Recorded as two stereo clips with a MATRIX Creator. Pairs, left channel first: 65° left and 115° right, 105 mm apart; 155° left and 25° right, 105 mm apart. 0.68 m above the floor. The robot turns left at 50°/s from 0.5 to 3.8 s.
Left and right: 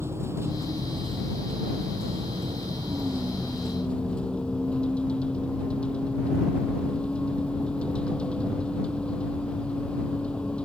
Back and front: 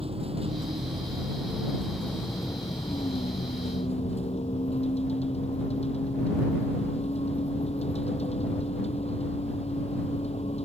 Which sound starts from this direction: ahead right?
A vehicle, at 0.0 s.